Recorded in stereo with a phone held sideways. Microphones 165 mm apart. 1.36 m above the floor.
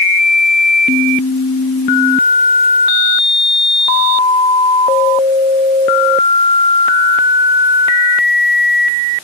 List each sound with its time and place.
Only background noise.